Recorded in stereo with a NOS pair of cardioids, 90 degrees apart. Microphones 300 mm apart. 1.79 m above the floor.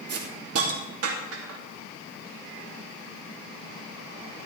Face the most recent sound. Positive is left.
turn(degrees=-55)